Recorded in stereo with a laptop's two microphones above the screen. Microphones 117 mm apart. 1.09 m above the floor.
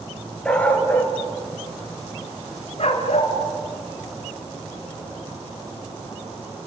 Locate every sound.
0.5 s a dog barking: 10° left (ahead or behind), 4 m; by 3.3 s 65° left (ahead or behind), 3.5 m